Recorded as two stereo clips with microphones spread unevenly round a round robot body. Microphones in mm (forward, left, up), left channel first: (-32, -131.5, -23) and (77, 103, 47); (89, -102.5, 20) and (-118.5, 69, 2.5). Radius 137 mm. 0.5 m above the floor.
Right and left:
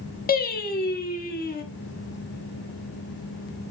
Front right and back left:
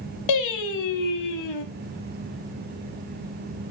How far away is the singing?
About 0.9 m.